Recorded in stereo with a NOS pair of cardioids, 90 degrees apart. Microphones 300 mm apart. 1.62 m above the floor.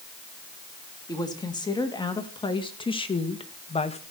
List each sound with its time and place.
1.1 s a woman speaking: 15° left, 3 m; by 4.0 s 20° left, 1.5 m